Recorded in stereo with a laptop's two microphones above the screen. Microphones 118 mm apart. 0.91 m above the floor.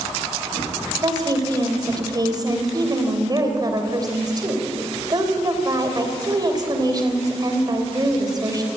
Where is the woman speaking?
35° right (ahead or behind), 3 m.